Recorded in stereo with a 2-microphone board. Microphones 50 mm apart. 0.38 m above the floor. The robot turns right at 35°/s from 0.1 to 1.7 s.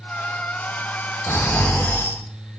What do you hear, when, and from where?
1.3 s snoring: 60° left (ahead or behind), 1.4 m; by 2.6 s 55° left (ahead or behind), 1.4 m